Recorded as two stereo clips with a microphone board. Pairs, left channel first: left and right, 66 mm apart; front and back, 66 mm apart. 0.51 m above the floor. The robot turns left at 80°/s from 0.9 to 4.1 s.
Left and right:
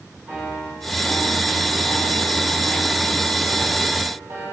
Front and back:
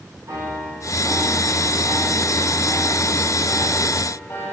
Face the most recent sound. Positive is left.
turn(degrees=-45)